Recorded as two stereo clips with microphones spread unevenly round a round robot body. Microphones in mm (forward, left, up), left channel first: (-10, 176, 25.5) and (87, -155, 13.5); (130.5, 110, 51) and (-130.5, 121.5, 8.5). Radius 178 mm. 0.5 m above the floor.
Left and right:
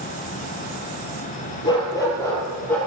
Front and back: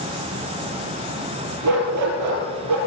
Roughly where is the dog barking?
Behind.